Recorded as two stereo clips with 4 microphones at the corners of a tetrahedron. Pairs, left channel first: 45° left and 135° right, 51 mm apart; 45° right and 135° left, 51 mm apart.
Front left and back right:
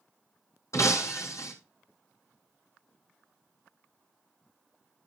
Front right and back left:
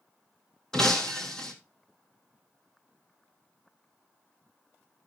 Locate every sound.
0.7 s breaking glass: 35° left, 2.5 m